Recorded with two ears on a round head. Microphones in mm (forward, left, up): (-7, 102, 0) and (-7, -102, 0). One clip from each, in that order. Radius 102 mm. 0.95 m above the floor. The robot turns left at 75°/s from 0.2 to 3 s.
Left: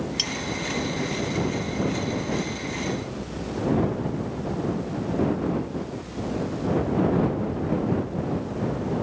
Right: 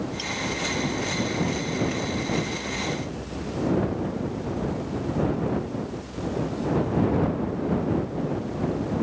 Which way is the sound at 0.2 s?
45° left (ahead or behind).